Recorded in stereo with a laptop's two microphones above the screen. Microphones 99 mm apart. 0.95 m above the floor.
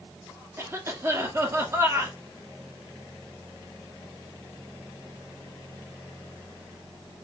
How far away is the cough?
About 1.8 m.